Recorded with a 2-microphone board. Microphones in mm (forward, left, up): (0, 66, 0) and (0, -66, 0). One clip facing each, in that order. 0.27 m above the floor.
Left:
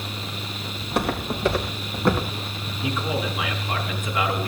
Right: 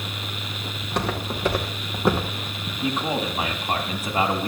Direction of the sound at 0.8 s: 10° left (ahead or behind).